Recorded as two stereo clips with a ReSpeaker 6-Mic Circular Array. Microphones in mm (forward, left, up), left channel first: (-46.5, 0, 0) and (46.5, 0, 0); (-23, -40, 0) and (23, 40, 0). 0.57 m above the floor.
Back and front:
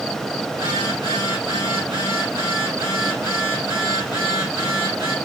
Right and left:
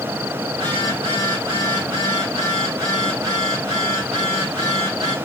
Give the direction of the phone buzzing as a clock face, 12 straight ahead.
11 o'clock.